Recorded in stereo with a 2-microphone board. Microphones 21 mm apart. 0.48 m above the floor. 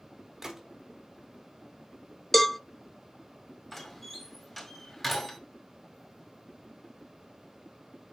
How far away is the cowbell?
About 0.5 m.